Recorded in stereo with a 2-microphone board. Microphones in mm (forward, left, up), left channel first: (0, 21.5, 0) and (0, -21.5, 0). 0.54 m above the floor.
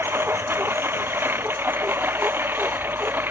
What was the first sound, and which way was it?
A lawn mower, 60° right (ahead or behind).